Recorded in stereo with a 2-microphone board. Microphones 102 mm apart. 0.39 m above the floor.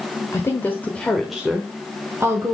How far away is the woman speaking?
About 1.1 m.